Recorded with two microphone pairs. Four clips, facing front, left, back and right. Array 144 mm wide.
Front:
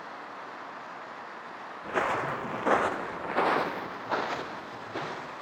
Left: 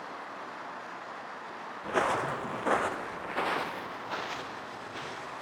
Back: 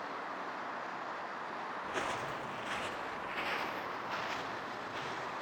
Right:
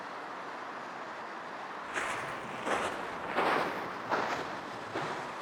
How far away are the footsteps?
About 0.7 m.